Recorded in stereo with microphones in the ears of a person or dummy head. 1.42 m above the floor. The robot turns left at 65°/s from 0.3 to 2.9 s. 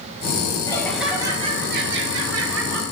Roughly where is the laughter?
Ahead.